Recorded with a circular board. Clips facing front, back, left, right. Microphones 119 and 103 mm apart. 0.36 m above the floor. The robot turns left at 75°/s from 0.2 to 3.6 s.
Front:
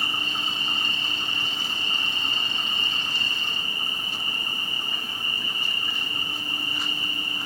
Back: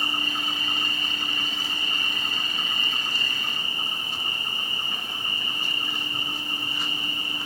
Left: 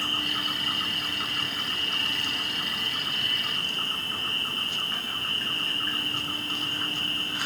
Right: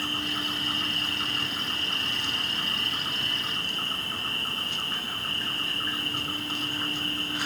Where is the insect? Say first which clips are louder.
Back 1 dB, even; 85° left, 7.5 m; by 7.5 s 170° right, 7.5 m.